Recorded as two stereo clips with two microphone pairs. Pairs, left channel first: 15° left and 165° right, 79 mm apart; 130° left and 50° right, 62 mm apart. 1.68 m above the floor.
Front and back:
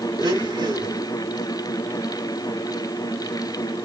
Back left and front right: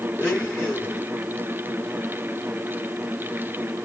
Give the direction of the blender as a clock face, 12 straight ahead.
6 o'clock.